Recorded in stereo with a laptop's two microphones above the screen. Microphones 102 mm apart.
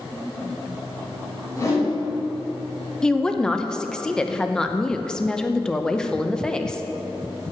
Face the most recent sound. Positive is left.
turn(degrees=5)  # may be behind; listen again after turning